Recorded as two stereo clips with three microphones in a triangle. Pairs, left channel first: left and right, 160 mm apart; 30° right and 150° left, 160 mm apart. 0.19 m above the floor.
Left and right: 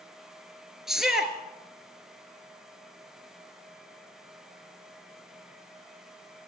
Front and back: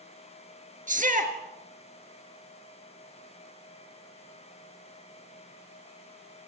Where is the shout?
175° right, 3 m.